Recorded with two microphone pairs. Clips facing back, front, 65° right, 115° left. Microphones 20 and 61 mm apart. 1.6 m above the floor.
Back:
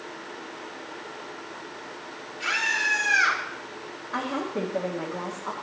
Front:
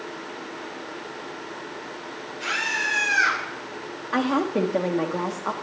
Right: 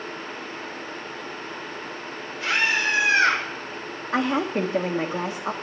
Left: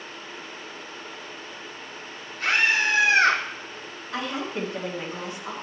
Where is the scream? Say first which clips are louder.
Even, left 1 dB; 85° left, 5 m; by 3.4 s 95° left, 5 m.